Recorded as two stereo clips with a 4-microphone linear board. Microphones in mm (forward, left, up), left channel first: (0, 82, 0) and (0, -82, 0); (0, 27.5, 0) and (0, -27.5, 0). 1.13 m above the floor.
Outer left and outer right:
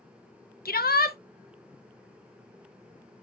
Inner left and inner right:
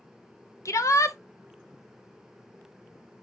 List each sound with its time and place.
0.7 s a shout: 70° left (ahead or behind), 0.8 m